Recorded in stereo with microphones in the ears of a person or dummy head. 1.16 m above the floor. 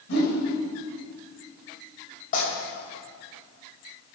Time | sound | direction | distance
0.1 | a whoosh | 75° left (ahead or behind) | 3.5 m
2.3 | tearing paper | 45° left (ahead or behind) | 4 m